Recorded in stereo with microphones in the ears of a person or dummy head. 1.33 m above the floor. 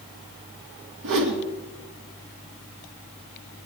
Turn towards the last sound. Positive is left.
turn(degrees=-75)  # may be behind; listen again after turning